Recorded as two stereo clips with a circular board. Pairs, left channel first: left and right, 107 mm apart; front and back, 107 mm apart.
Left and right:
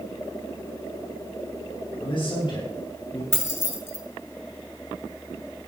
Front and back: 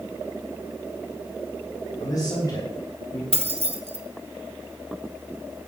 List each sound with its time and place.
2.0 s a man speaking: 55° left, 3.5 m; by 3.2 s 50° left, 5 m
3.3 s keys jangling: 155° left, 1.4 m